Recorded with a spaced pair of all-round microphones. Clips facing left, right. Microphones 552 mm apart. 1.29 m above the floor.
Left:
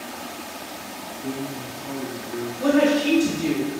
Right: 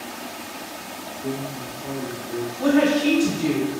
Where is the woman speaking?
15° right (ahead or behind), 1.3 m.